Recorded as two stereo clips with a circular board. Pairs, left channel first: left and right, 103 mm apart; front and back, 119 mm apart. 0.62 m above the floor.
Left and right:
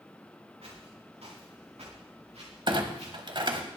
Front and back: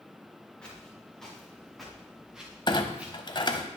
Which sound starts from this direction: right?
Footsteps, at 0.6 s.